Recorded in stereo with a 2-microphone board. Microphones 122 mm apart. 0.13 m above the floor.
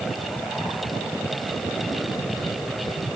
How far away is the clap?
I don't hear a clap.